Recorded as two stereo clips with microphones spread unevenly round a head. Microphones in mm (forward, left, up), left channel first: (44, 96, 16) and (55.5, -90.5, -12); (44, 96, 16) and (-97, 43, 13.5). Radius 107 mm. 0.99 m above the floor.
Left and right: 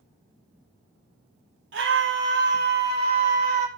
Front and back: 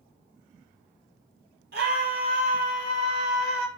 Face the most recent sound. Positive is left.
turn(degrees=-125)